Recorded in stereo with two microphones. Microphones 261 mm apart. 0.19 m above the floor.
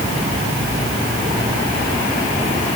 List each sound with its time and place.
Only background noise.